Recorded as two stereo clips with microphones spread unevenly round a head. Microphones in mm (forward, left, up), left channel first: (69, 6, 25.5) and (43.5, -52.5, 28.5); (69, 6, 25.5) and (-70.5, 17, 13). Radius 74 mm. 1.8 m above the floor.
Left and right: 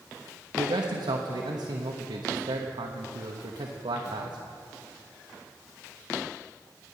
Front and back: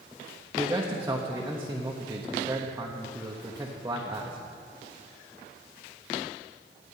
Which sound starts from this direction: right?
A man speaking, at 0.6 s.